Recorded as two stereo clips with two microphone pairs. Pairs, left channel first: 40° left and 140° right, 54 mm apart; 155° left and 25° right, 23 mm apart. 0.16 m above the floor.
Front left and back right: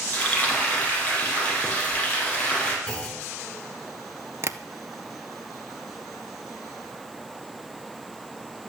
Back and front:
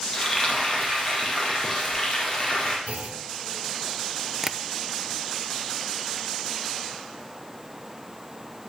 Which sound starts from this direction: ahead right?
A clunk, at 2.9 s.